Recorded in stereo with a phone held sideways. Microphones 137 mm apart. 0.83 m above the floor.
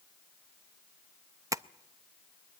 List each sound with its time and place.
1.5 s tapping: 25° right (ahead or behind), 0.5 m